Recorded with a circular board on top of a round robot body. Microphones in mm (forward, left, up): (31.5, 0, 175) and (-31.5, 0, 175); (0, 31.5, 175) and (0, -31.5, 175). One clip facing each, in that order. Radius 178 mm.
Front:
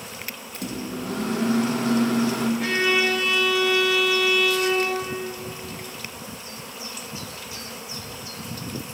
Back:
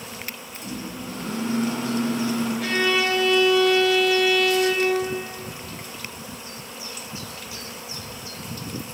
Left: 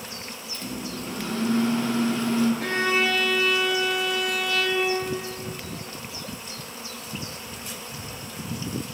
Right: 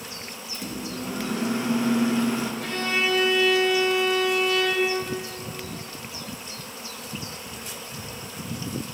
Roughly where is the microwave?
Ahead.